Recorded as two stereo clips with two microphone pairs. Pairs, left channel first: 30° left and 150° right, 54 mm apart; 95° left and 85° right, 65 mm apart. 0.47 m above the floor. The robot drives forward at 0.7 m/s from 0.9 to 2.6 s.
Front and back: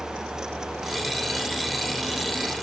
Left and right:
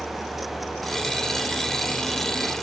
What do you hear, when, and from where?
Only background noise.